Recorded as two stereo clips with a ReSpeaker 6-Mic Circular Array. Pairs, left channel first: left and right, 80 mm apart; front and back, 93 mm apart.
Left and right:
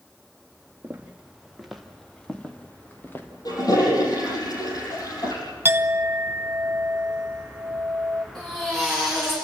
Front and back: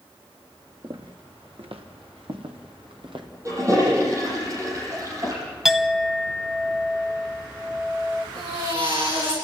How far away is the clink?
About 0.9 m.